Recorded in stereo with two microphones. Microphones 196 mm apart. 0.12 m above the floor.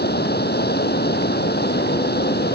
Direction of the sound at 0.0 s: 55° left (ahead or behind).